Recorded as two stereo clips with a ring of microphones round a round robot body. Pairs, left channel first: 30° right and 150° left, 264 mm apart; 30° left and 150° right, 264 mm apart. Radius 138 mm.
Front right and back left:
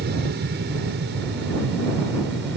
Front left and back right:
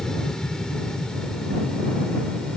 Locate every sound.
0.0 s an aircraft: 115° left